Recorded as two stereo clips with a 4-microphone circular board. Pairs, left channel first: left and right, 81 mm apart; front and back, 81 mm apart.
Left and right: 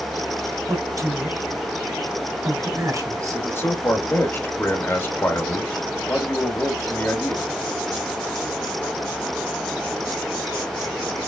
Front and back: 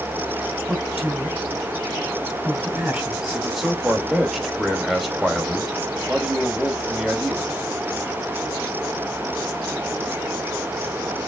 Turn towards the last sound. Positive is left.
turn(degrees=95)